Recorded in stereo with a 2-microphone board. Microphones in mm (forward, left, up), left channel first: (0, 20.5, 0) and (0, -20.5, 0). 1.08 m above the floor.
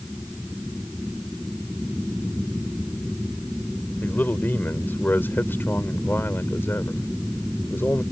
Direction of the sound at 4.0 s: 55° left (ahead or behind).